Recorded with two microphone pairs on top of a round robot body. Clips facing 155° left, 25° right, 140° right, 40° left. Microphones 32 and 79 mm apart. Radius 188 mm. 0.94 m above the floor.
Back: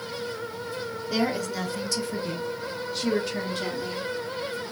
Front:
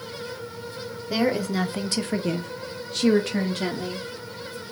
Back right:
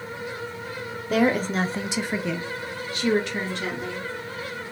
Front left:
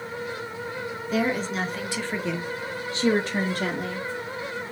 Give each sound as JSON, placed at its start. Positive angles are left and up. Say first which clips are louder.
{"t": 1.1, "sound": "a woman speaking", "louder": "front 3 dB, back right 4 dB", "azimuth_deg": -100, "distance_m": 0.8}